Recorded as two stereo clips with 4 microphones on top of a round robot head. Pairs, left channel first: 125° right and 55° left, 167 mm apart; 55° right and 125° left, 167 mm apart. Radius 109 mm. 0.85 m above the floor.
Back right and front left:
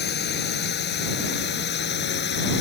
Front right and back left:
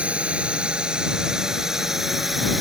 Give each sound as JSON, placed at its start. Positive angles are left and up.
{"t": 0.0, "sound": "a drone", "azimuth_deg": -150}